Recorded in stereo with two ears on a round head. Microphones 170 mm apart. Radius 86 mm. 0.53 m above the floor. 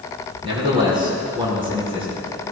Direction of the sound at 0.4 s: 30° right (ahead or behind).